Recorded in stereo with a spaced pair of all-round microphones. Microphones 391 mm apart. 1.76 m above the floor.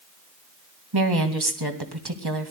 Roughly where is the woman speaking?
Right.